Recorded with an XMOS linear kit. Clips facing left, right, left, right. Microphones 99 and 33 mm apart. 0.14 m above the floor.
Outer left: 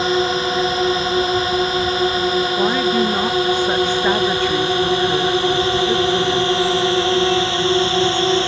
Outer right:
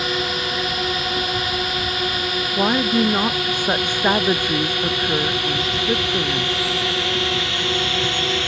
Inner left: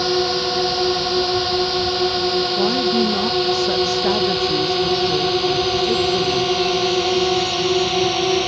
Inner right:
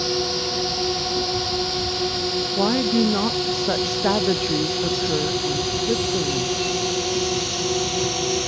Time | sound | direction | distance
0.0 | a drone | 30° left (ahead or behind) | ?
2.6 | a woman speaking | 15° right (ahead or behind) | ?